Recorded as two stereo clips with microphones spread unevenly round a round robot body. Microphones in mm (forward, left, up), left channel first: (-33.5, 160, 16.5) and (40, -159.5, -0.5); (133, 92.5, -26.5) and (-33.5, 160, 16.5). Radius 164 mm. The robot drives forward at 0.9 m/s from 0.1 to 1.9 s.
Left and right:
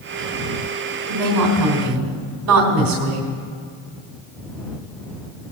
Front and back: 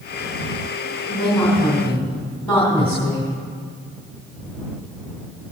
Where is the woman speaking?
90° right, 3 m; by 3.3 s 105° right, 3 m.